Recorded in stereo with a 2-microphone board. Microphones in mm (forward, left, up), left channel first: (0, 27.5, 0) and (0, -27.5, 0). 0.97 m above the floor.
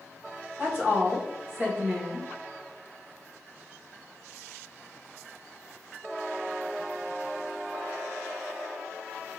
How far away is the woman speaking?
About 1.2 m.